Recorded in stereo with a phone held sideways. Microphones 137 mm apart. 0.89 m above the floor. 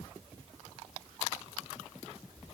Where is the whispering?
I don't hear whispering.